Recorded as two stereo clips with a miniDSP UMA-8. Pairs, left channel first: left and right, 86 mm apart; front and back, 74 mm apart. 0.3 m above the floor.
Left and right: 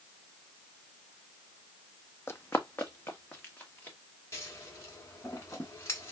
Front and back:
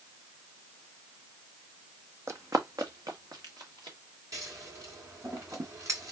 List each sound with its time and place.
2.3 s running footsteps: 145° left, 0.5 m; by 4.0 s 160° left, 2 m
4.3 s scissors: 145° left, 1.6 m